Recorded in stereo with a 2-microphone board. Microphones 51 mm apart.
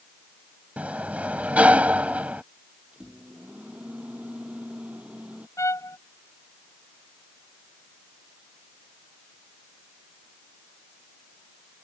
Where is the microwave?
25° right (ahead or behind).